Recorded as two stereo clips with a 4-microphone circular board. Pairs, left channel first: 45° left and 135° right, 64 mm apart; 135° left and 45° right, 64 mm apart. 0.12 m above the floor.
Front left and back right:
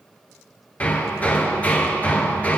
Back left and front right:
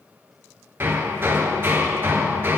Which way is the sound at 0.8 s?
10° right.